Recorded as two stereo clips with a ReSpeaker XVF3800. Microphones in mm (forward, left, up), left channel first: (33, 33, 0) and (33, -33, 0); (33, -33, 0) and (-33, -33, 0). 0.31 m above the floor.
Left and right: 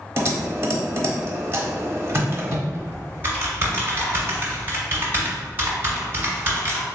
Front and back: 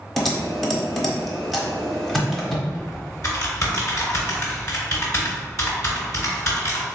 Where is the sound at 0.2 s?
80° right, 0.8 m.